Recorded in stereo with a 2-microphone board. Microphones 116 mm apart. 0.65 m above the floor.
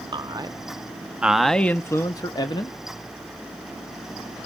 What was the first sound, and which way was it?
A man speaking, 40° right (ahead or behind).